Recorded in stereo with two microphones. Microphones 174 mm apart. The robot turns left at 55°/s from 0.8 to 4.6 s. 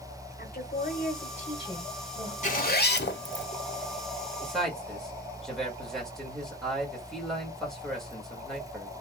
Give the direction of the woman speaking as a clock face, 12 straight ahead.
9 o'clock.